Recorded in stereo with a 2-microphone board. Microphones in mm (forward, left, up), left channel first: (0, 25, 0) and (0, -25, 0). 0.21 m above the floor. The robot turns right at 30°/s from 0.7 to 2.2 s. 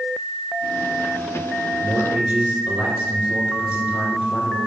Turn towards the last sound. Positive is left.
turn(degrees=-25)  # may be behind; listen again after turning